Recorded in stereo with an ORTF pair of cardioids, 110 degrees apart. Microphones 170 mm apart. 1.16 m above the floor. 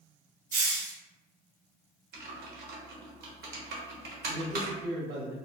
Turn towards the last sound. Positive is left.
turn(degrees=-65)